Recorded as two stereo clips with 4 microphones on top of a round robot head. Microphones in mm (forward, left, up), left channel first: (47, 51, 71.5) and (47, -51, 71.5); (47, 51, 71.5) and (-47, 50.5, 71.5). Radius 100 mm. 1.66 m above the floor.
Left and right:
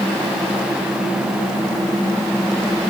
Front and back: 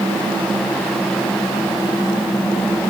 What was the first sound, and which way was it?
Only background noise.